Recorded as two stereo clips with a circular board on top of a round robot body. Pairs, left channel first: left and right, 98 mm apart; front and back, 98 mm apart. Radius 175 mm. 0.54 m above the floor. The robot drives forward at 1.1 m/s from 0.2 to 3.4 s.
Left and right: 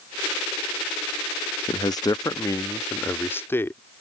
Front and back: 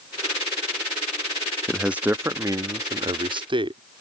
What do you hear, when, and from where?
1.7 s a man speaking: 90° left; by 3.8 s 155° left